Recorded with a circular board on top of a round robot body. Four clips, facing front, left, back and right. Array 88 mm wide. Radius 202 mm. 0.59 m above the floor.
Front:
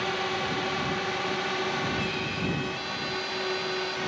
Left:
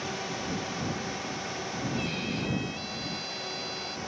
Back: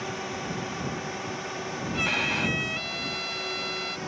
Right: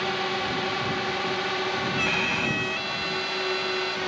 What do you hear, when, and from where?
0.0 s a drone: 60° right; by 4.1 s 65° right
1.9 s a violin: 130° right